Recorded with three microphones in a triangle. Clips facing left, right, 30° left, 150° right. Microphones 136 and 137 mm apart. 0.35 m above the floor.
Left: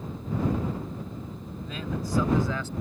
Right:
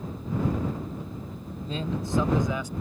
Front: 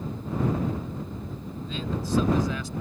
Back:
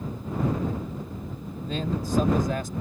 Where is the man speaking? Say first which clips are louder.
Right 2 dB, back 3 dB; 140° right; by 2.7 s 165° right.